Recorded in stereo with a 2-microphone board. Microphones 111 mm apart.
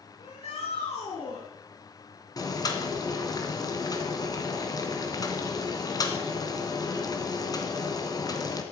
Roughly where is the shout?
Left.